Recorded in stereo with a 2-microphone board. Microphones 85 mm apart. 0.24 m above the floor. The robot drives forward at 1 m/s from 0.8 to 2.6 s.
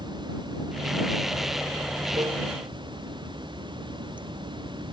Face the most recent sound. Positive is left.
turn(degrees=-65)  # may be behind; listen again after turning